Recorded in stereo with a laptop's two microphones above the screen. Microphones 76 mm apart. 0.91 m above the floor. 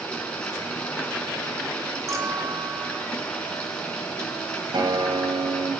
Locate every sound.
0.0 s running water: 15° left (ahead or behind), 5 m
2.1 s a clink: 45° right (ahead or behind), 1.9 m
4.7 s a guitar: 75° right (ahead or behind), 3 m